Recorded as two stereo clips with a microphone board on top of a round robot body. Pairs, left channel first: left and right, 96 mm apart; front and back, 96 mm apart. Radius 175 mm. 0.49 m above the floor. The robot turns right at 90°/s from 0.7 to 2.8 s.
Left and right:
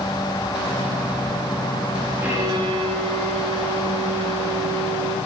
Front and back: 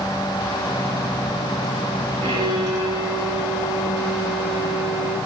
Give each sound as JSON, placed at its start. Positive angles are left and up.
{"t": 2.2, "sound": "a violin", "azimuth_deg": -160, "distance_m": 6.0}